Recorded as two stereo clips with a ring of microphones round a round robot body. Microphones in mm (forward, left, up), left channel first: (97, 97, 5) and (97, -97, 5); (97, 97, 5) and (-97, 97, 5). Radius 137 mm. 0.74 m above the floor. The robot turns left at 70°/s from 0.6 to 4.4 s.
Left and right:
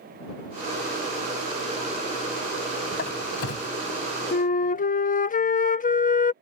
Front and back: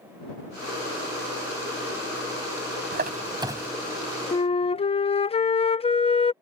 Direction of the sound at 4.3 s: 60° left.